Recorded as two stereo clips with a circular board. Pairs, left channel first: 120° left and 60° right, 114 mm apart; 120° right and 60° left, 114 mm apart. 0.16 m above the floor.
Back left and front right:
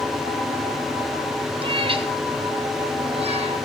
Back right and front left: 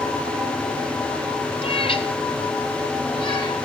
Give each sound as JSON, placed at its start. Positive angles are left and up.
{"t": 1.6, "sound": "a cat meowing", "azimuth_deg": -95, "distance_m": 1.1}